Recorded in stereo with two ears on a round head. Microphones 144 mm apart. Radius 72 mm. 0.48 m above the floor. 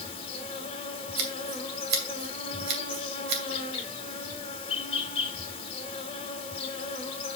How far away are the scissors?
About 2.5 m.